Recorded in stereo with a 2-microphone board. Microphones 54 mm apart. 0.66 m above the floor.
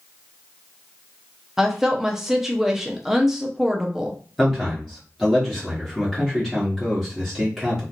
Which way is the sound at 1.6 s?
5° right (ahead or behind).